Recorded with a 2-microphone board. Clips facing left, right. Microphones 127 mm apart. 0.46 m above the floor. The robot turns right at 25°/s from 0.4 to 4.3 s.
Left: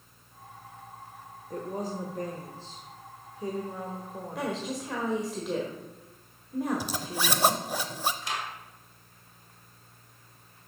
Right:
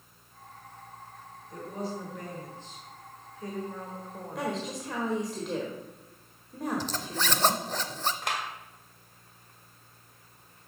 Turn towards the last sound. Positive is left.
turn(degrees=-65)  # may be behind; listen again after turning